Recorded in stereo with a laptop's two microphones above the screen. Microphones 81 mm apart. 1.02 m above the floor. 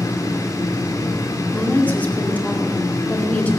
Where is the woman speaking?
20° left (ahead or behind), 2 m.